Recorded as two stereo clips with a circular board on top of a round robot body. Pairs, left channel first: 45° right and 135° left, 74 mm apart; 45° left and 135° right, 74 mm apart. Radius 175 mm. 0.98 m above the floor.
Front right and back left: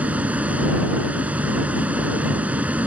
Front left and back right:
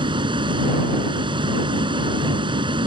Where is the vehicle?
150° right.